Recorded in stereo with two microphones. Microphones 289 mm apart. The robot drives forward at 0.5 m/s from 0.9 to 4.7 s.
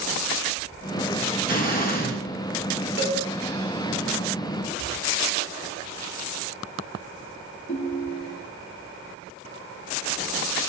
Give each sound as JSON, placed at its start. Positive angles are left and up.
{"t": 1.5, "sound": "an explosion", "side_deg": 30, "distance_m": 2.5}
{"t": 3.0, "sound": "a cowbell", "side_deg": -40, "distance_m": 1.1}
{"t": 4.8, "sound": "a cupboard door", "side_deg": 65, "distance_m": 6.5}
{"t": 7.7, "sound": "a ringtone", "side_deg": 45, "distance_m": 2.0}